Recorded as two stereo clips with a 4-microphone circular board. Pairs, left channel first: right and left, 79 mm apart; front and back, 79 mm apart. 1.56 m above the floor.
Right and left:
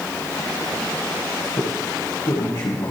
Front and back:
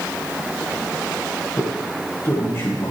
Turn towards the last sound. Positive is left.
turn(degrees=-55)